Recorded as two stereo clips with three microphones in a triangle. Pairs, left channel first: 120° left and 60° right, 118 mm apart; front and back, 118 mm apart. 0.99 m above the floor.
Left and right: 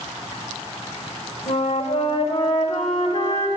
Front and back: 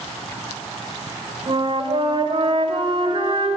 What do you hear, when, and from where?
1.5 s a flute: 135° left, 1.5 m